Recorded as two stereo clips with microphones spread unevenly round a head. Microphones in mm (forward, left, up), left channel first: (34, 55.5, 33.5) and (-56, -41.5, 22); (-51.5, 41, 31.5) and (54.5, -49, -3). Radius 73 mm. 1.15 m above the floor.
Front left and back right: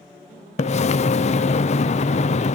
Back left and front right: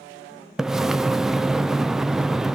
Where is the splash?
30° left, 0.6 m.